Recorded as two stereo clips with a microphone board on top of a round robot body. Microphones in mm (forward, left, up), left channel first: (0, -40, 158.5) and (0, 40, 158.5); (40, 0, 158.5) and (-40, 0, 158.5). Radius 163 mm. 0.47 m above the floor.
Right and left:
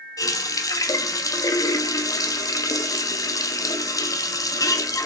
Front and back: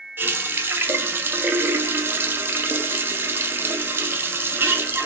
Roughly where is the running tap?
Behind right.